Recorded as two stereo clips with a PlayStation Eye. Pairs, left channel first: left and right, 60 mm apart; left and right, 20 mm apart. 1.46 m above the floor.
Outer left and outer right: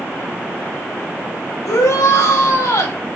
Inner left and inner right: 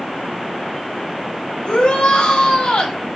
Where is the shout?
65° left (ahead or behind), 3.5 m.